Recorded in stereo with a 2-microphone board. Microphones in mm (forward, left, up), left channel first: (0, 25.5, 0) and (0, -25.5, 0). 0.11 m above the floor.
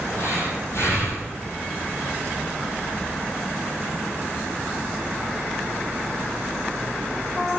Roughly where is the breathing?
Left.